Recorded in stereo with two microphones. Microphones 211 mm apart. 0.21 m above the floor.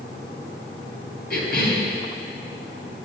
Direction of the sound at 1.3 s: 50° left (ahead or behind).